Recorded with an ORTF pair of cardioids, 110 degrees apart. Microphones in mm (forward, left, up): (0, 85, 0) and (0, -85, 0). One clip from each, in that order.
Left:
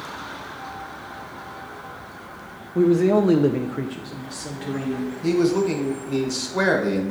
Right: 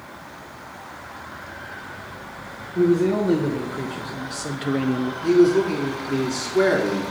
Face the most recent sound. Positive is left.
turn(degrees=35)